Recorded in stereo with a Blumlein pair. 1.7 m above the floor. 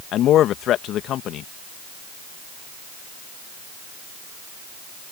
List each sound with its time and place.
0.1 s a man speaking: 30° left